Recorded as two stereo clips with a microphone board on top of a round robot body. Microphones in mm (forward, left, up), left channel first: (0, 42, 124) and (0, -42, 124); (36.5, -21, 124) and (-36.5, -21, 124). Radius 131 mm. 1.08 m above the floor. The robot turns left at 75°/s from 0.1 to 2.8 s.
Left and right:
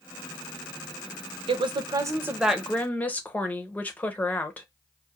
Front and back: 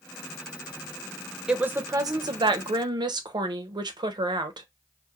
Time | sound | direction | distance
1.5 | a woman speaking | 100° right | 0.6 m